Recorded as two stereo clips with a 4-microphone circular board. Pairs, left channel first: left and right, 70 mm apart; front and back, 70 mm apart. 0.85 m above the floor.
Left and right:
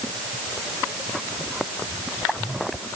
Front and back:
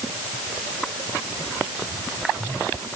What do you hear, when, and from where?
Only background noise.